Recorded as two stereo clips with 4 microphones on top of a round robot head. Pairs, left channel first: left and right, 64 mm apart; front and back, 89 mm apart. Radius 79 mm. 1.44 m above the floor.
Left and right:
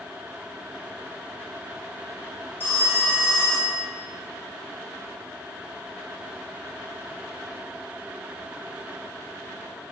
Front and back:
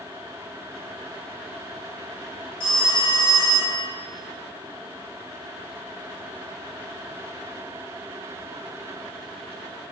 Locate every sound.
2.6 s a phone ringing: 30° left, 1.3 m